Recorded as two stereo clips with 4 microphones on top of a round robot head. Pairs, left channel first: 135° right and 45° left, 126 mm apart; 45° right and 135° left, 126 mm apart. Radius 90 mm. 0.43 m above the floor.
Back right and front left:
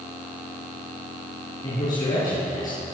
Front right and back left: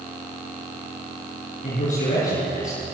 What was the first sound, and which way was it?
A man speaking, 75° right.